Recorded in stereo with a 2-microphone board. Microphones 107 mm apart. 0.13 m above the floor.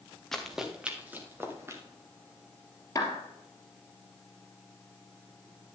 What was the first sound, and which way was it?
Running footsteps, 5° left (ahead or behind).